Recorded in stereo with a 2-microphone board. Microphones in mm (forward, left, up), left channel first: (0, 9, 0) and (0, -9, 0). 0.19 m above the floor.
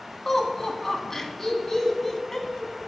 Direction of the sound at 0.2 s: 25° left (ahead or behind).